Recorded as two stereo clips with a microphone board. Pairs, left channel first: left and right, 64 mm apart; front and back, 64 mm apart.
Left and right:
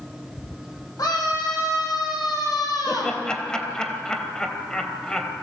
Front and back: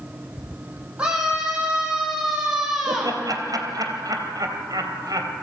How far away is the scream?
About 7 m.